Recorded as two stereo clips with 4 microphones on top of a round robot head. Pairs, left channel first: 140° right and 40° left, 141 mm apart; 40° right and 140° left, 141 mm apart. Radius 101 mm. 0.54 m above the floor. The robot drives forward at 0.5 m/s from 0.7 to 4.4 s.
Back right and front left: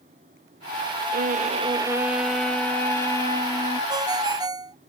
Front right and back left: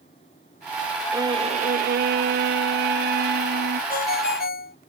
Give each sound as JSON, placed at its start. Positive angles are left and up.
{"t": 1.1, "sound": "a violin", "azimuth_deg": 70}
{"t": 3.9, "sound": "a ringtone", "azimuth_deg": -20}